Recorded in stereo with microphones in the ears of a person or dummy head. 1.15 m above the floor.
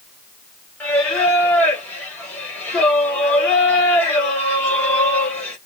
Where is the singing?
10° left (ahead or behind), 1.2 m.